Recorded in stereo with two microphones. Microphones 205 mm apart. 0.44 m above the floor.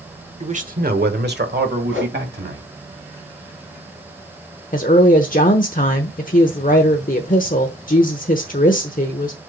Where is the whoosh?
80° right, 2 m.